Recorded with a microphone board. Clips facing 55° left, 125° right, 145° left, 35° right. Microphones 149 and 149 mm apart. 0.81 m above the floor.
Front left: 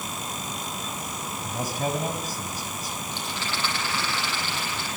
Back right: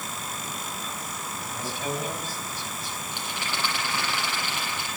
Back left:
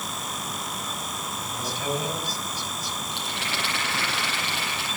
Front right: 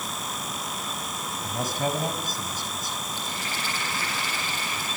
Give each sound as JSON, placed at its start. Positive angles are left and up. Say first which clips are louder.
{"t": 1.4, "sound": "a man speaking", "louder": "front left 4 dB, front right 4 dB", "azimuth_deg": 10, "distance_m": 5.0}
{"t": 3.1, "sound": "a rattle", "louder": "even, back left 1 dB", "azimuth_deg": 160, "distance_m": 9.5}